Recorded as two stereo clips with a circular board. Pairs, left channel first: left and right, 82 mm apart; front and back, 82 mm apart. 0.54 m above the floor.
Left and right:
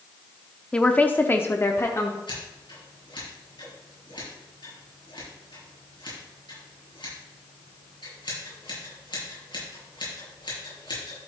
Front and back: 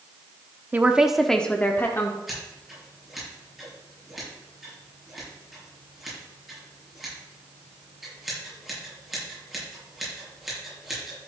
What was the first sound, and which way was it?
A woman speaking, 150° left.